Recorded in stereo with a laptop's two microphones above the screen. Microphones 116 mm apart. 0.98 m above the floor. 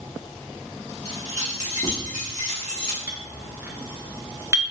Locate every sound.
1.1 s keys jangling: 65° left (ahead or behind), 1.4 m
3.1 s a clink: 20° right (ahead or behind), 0.9 m